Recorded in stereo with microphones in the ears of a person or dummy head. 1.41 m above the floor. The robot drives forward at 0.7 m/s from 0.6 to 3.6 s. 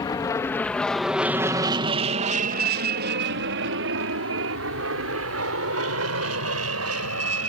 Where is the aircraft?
25° left (ahead or behind); by 7.5 s 80° right.